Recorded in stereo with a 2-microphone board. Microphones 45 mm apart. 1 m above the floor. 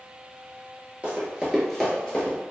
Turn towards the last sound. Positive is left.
turn(degrees=30)  # may be behind; listen again after turning